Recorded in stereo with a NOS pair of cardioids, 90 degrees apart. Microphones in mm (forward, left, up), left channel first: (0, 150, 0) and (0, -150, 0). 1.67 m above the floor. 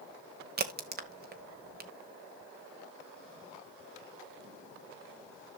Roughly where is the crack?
Ahead right.